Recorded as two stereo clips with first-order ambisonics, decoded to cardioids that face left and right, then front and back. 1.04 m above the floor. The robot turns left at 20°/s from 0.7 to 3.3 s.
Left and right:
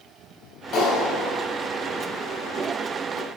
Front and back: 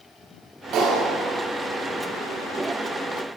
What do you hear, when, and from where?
0.7 s a clap: 145° left, 5 m; by 1.5 s 130° left, 5 m